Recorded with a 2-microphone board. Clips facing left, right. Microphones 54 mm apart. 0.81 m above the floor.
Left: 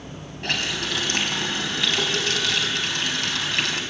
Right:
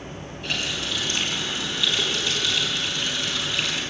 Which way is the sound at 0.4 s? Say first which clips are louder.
Left 2 dB; 65° left (ahead or behind).